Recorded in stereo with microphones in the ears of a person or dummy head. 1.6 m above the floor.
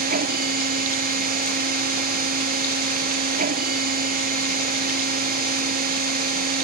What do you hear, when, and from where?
0.0 s a machine running: 50° right (ahead or behind)